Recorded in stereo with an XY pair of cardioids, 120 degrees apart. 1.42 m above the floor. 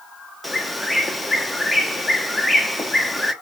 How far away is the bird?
About 0.9 m.